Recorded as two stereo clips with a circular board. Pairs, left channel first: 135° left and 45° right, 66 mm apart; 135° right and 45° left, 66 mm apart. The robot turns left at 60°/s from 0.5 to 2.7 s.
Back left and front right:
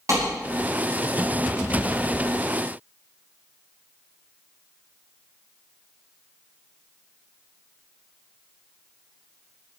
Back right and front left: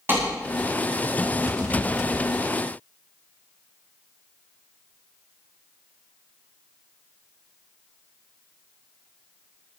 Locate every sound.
0.1 s a clap: 10° right, 9 m